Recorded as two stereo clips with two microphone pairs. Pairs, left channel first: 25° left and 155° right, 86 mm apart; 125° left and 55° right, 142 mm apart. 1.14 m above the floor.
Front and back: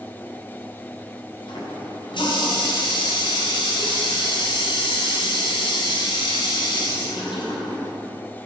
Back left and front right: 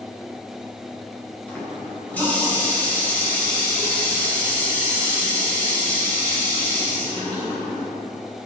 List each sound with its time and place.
1.5 s a running tap: 45° left, 4.5 m